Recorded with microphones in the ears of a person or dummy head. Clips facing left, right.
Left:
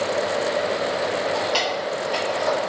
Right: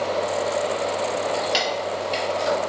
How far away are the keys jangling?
About 1.9 m.